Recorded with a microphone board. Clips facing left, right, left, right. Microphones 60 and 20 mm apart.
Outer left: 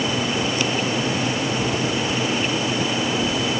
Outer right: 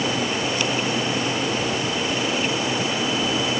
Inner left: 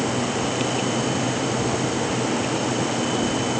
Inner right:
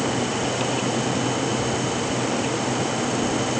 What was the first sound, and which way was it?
Only background noise.